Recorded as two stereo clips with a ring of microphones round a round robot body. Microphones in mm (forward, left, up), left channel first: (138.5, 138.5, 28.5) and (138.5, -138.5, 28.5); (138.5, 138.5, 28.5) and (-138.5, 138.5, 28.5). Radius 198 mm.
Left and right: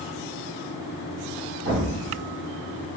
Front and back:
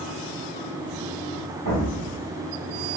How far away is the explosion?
About 1.7 m.